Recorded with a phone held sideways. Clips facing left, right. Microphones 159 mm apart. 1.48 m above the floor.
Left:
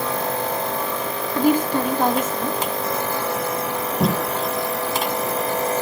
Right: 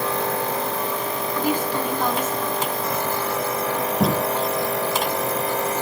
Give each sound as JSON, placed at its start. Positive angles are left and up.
{"t": 1.4, "sound": "a woman speaking", "side_deg": 50, "distance_m": 2.5}
{"t": 4.0, "sound": "tape being pulled", "side_deg": 0, "distance_m": 6.0}